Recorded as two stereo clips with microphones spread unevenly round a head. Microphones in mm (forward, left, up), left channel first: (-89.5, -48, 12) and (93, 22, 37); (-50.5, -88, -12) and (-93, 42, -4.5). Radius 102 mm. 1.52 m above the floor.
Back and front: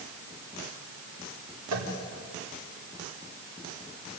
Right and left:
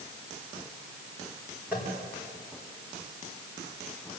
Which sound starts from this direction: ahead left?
Tapping, at 1.7 s.